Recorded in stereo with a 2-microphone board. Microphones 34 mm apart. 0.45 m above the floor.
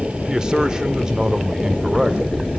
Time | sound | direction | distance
0.3 | a man speaking | 25° right (ahead or behind) | 1.2 m